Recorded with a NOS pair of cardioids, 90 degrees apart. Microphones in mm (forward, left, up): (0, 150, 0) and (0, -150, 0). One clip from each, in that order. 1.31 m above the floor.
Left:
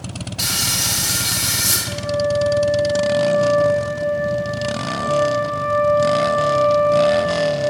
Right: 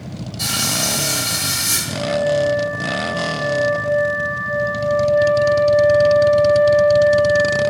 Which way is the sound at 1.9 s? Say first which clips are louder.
Right 1 dB; 55° left.